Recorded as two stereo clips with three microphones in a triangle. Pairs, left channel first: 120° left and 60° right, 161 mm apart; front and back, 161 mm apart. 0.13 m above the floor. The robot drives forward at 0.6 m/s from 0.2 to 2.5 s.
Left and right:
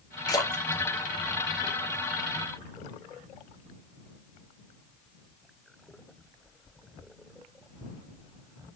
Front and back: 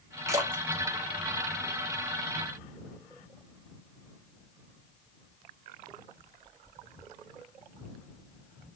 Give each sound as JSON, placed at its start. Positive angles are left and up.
{"t": 0.3, "sound": "a splash", "azimuth_deg": 140, "distance_m": 0.9}